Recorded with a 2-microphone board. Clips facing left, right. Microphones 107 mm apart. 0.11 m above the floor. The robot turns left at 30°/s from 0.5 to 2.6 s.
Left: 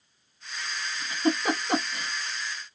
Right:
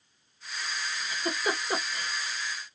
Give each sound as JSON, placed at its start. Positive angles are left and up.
{"t": 1.0, "sound": "a giggle", "side_deg": 40, "distance_m": 1.8}